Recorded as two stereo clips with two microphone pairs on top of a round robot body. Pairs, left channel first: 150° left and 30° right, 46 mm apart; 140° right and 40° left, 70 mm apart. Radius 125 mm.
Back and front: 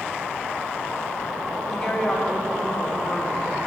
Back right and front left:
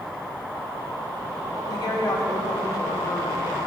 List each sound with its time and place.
1.7 s a woman speaking: 135° right, 3 m